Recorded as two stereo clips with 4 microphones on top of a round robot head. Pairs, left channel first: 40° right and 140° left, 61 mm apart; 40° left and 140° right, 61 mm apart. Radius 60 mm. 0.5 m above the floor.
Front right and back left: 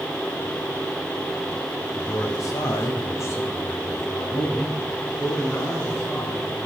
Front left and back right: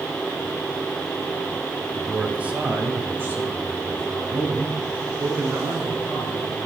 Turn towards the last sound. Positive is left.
turn(degrees=-100)